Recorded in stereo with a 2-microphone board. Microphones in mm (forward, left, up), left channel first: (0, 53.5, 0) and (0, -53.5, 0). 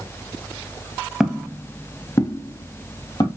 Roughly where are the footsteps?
Centre.